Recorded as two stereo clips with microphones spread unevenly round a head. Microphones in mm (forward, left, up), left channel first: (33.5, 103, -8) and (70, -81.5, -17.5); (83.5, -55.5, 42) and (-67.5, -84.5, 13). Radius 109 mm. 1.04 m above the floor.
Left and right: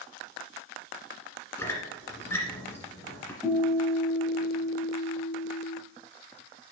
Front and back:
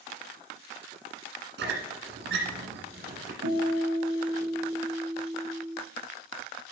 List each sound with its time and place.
1.6 s a squeak: 175° left, 1.7 m
3.4 s a guitar: 170° right, 3 m